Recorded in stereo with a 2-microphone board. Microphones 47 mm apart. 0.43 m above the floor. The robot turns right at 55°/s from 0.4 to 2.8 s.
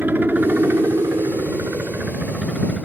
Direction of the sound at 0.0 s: 135° right.